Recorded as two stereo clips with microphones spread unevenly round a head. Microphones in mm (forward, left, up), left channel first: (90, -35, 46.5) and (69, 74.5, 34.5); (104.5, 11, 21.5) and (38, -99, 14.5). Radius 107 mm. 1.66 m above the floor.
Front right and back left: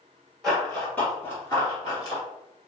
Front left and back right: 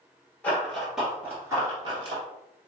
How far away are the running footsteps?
About 1.8 m.